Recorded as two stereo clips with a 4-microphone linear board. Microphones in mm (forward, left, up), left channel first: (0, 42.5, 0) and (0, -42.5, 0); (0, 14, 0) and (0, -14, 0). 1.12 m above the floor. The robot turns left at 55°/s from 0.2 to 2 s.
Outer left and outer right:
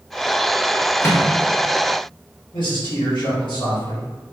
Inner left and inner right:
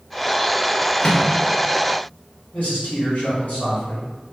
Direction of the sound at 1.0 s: 30° left (ahead or behind).